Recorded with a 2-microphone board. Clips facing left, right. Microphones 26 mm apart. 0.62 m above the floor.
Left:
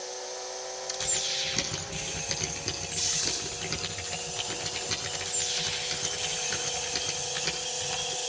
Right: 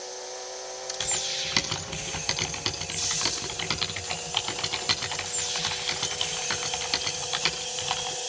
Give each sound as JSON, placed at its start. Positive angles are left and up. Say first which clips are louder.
{"t": 1.0, "sound": "typing on a keyboard", "louder": "right 1 dB", "side_deg": -80, "distance_m": 6.5}